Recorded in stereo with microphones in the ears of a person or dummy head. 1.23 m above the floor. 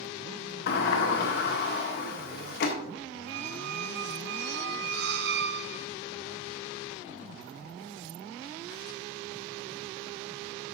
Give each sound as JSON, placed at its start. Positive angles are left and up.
{"t": 0.7, "sound": "a sliding door", "side_deg": 60, "distance_m": 1.3}
{"t": 3.3, "sound": "a squeak", "side_deg": -65, "distance_m": 0.5}